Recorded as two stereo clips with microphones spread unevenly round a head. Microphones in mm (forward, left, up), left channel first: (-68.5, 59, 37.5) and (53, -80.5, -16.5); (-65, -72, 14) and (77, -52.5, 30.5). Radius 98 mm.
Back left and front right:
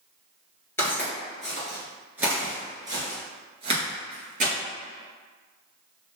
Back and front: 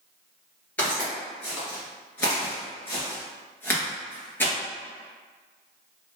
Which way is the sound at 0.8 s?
100° left.